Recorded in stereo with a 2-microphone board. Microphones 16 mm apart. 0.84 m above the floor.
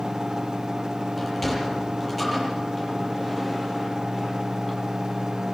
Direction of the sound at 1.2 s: 5° left (ahead or behind).